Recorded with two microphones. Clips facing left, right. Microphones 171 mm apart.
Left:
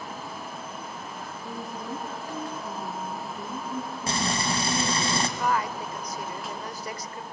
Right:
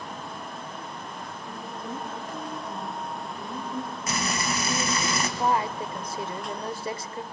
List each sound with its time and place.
1.4 s a woman speaking: 75° left (ahead or behind), 5 m
4.1 s frying: 30° left (ahead or behind), 1.6 m
5.4 s a woman speaking: 25° right (ahead or behind), 0.9 m